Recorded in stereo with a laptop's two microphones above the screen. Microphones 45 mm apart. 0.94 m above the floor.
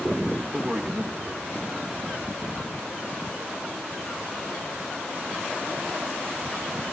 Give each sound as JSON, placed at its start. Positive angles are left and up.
{"t": 0.5, "sound": "a man speaking", "side_deg": -10, "distance_m": 0.8}